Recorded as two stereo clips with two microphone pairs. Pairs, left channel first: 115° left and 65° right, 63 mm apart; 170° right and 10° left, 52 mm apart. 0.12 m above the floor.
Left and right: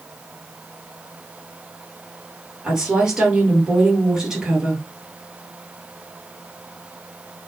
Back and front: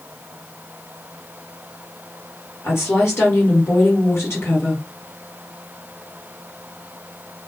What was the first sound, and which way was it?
A woman speaking, 145° right.